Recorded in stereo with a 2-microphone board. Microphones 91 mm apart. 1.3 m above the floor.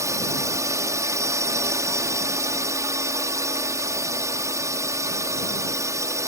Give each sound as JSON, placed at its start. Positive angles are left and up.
{"t": 0.0, "sound": "a drone", "side_deg": -35}